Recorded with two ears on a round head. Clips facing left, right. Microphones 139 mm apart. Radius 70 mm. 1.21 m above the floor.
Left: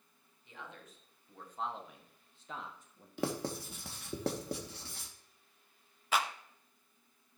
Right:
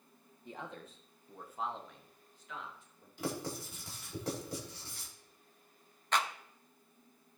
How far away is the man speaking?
About 2.0 m.